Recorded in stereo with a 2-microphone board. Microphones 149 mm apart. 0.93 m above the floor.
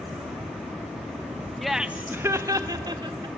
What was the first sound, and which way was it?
Laughter, centre (ahead or behind).